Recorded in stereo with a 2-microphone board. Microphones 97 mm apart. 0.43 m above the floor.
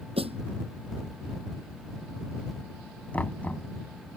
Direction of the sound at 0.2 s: 80° right.